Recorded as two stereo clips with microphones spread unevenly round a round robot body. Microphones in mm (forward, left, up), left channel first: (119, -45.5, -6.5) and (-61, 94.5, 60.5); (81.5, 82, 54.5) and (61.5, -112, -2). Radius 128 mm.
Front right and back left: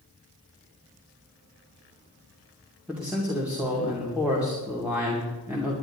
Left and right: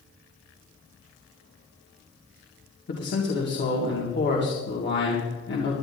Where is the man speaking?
50° left, 2.5 m.